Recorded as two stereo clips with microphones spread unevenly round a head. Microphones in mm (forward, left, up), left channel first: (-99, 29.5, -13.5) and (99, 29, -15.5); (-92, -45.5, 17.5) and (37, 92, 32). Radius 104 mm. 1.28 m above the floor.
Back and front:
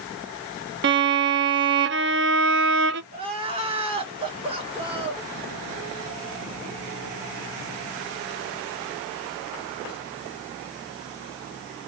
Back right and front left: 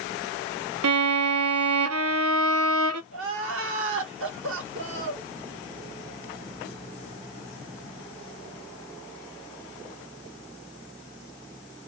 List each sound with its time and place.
0.8 s a violin: 30° left, 0.7 m
3.1 s crying: 65° left, 1.4 m